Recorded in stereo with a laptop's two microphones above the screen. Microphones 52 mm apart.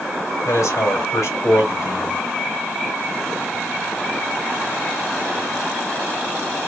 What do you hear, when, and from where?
0.5 s a man speaking: 80° left, 3 m